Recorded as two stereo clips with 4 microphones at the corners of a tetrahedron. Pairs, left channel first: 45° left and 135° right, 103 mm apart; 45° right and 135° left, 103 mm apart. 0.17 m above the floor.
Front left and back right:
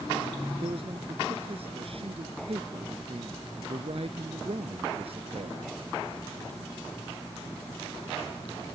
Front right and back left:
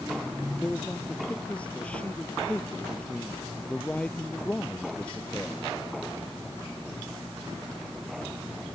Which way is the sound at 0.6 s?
125° right.